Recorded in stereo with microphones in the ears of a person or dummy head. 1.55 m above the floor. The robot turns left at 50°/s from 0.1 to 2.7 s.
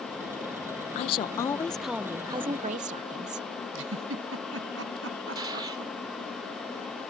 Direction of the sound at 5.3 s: 20° right (ahead or behind).